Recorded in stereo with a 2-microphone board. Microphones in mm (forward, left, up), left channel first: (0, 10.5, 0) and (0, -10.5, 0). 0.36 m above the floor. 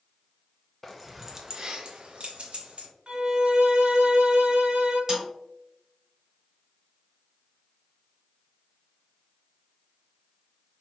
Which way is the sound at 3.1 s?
60° right (ahead or behind).